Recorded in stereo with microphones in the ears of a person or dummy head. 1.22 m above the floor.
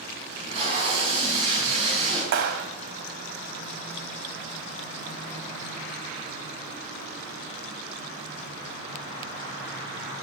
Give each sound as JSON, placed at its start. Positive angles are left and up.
{"t": 0.3, "sound": "tape being pulled", "side_deg": -25, "distance_m": 3.5}
{"t": 2.3, "sound": "a clap", "side_deg": -70, "distance_m": 1.2}